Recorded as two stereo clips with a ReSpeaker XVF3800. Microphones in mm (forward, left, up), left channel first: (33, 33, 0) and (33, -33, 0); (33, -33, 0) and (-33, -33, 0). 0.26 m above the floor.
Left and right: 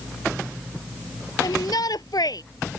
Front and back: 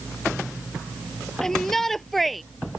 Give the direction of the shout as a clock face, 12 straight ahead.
9 o'clock.